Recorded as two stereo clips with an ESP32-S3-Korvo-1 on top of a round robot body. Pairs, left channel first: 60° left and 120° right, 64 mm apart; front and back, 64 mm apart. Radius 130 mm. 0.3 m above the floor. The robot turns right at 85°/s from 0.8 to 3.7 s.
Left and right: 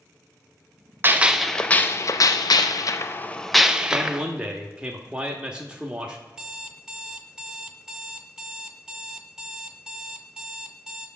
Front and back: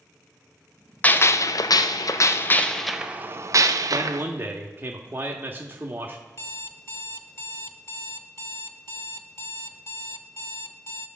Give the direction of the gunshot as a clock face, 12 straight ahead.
2 o'clock.